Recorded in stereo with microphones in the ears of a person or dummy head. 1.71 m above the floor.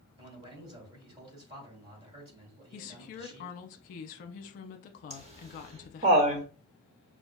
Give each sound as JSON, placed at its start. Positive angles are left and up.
{"t": 0.2, "sound": "a man speaking", "side_deg": -30, "distance_m": 2.5}
{"t": 2.7, "sound": "a woman speaking", "side_deg": 45, "distance_m": 0.7}
{"t": 5.1, "sound": "laughter", "side_deg": -30, "distance_m": 1.0}